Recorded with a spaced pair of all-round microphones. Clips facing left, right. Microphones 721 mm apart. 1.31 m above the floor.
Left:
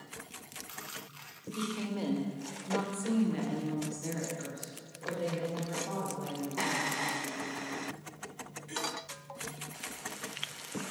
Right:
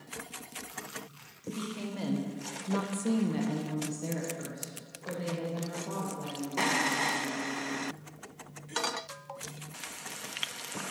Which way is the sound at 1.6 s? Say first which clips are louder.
Left 3 dB; 5° right (ahead or behind).